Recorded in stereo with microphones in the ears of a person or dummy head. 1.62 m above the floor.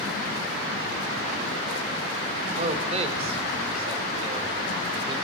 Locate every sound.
2.6 s a man speaking: 40° right (ahead or behind), 4 m; by 5.2 s 30° right (ahead or behind), 5.5 m